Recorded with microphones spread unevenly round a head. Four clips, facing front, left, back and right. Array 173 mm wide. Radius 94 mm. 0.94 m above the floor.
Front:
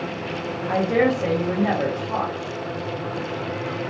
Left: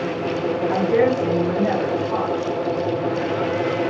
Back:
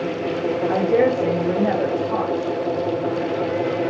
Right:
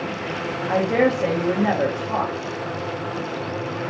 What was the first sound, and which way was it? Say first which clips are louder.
A woman speaking: even, back 1 dB; 145° right.